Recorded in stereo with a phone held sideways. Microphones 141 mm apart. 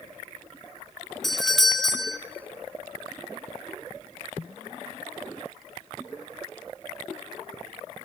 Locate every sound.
1.2 s a doorbell: centre (ahead or behind), 1.2 m